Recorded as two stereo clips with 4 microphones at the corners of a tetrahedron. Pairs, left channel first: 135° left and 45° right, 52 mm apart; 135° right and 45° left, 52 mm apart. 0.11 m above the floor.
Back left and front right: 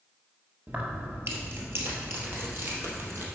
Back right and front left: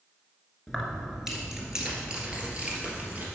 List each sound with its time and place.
0.7 s keys jangling: 55° right, 1.5 m; by 3.2 s 15° right, 2.5 m